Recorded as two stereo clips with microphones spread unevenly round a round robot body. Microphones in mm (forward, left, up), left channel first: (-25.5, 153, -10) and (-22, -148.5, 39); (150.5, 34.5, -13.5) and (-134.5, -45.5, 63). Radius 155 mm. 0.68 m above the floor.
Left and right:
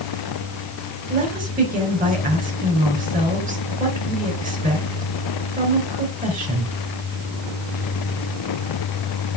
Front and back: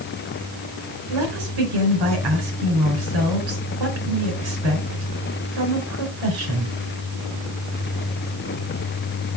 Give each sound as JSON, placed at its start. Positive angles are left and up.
{"t": 1.1, "sound": "a woman speaking", "azimuth_deg": -155, "distance_m": 3.5}